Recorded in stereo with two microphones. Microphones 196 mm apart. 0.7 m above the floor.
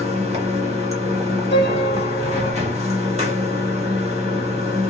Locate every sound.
0.0 s running water: 30° right (ahead or behind), 1.0 m
1.5 s a piano: 55° left (ahead or behind), 1.2 m